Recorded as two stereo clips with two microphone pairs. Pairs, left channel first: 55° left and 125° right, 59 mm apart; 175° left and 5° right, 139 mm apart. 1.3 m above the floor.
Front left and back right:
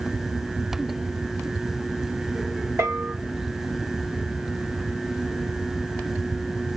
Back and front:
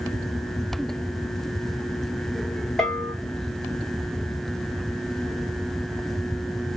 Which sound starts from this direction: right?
A bell, at 2.8 s.